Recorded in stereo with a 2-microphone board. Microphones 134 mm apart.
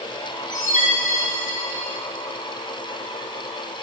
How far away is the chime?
About 4 m.